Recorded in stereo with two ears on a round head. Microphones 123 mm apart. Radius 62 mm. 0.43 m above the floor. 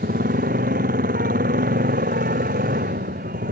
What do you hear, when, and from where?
0.0 s a motorcycle: 60° right (ahead or behind)